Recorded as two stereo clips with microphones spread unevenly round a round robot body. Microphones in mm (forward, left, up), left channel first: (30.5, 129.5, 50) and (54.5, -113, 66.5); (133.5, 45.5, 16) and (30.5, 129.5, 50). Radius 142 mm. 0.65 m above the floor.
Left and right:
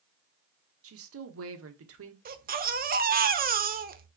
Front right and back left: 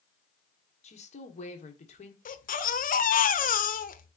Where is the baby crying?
30° right, 0.9 m.